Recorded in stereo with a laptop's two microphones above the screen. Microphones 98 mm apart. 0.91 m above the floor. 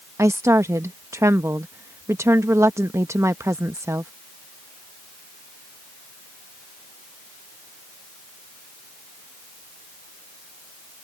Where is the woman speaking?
30° right (ahead or behind).